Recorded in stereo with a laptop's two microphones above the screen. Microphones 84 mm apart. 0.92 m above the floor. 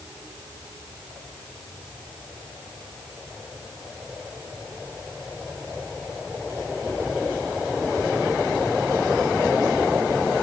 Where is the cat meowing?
No cat meowing in this recording.